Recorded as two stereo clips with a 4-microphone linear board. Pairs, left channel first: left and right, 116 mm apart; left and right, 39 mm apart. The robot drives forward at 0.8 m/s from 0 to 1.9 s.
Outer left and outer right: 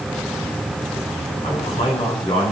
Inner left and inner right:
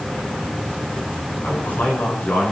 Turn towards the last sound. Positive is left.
turn(degrees=55)  # may be behind; listen again after turning